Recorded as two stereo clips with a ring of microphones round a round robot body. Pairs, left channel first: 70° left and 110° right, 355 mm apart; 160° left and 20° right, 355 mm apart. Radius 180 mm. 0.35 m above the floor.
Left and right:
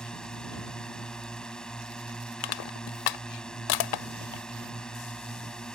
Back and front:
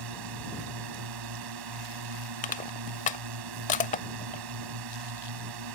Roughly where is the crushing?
Left.